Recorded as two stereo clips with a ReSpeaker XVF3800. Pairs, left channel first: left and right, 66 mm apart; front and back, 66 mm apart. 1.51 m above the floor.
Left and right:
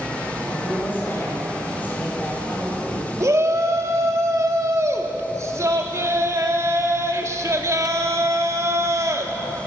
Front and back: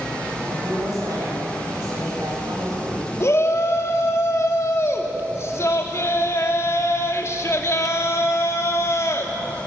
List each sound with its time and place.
0.5 s a woman speaking: 150° left, 8.5 m
3.2 s a shout: 45° right, 2.5 m